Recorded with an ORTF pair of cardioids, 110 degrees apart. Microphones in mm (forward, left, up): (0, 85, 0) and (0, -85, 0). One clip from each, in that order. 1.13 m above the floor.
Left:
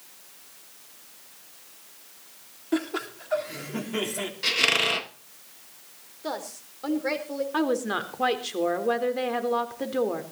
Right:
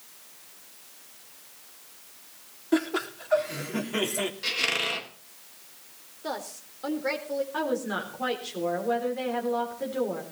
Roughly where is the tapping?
No tapping in this recording.